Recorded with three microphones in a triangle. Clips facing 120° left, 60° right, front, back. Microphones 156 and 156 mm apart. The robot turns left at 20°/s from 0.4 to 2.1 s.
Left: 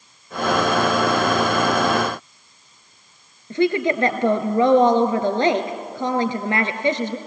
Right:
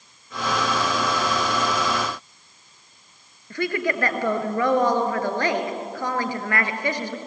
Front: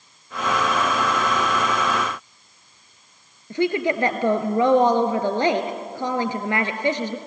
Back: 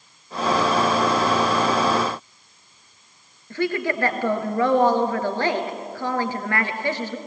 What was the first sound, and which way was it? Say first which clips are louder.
A woman speaking: left 6 dB, front 3 dB; 60° left.